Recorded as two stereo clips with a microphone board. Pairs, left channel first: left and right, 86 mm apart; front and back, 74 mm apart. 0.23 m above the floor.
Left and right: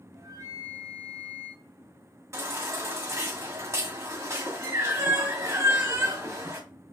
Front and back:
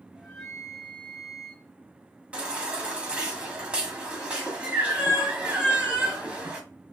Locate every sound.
0.1 s a flute: 85° right, 1.6 m
2.3 s a baby crying: 115° right, 1.3 m